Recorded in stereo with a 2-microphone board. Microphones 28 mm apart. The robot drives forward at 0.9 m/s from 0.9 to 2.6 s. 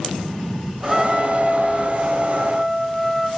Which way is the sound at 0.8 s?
10° right (ahead or behind).